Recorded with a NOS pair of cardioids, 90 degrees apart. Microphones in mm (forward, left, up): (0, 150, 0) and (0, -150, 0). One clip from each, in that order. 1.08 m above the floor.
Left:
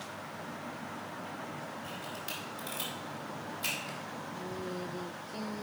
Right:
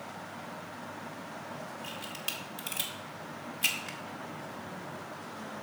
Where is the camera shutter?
65° right, 2 m.